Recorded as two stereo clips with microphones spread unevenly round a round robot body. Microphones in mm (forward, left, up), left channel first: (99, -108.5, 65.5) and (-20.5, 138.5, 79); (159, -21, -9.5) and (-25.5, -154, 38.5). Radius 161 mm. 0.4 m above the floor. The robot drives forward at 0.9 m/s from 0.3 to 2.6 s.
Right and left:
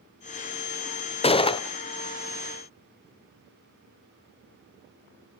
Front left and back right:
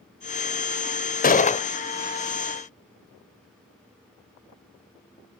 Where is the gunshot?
Straight ahead, 1.1 m.